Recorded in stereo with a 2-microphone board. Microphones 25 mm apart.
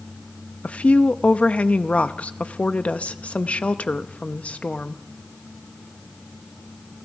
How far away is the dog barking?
I don't hear a dog barking.